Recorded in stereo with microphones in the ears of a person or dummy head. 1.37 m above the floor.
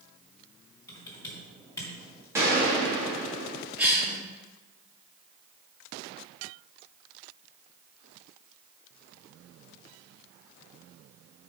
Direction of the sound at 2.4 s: 15° right (ahead or behind).